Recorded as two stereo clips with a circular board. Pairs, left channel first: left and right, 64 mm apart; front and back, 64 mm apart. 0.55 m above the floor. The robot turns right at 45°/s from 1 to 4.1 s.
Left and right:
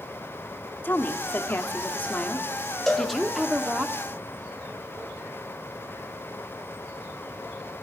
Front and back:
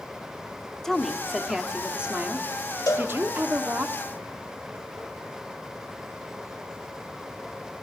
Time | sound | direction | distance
0.8 | a woman speaking | 75° left | 0.9 m
2.9 | a cowbell | 5° left | 1.5 m